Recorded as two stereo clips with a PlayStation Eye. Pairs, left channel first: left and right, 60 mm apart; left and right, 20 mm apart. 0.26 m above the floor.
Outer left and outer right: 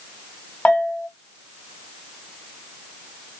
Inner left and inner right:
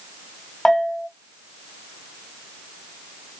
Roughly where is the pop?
No pop in this recording.